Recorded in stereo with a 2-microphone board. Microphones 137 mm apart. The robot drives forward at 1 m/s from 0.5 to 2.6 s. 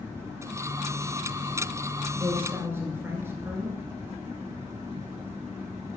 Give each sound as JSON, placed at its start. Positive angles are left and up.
{"t": 2.2, "sound": "a man speaking", "side_deg": -15, "distance_m": 2.0}